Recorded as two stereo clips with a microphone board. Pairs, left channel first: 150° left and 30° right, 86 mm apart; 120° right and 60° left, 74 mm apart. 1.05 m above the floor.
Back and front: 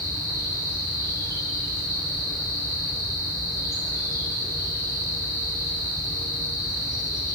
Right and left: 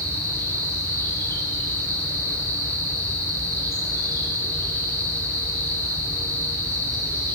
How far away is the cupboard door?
No cupboard door in this recording.